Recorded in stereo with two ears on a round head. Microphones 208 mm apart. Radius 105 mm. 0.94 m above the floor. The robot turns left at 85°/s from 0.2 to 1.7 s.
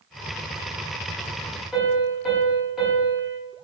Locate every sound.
1.7 s a piano: centre (ahead or behind), 1.0 m